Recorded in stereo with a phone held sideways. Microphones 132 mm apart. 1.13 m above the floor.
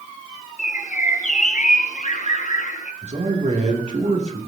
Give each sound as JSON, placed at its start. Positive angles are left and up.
{"t": 0.6, "sound": "a bird", "side_deg": 60, "distance_m": 0.9}
{"t": 3.0, "sound": "a man speaking", "side_deg": -60, "distance_m": 2.5}